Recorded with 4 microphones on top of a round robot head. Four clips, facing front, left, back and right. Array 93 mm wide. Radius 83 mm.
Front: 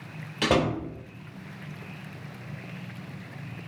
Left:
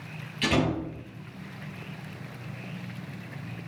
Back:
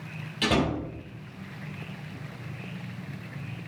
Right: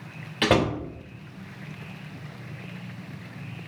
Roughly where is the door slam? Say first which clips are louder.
Right 4 dB, front 2 dB; ahead right.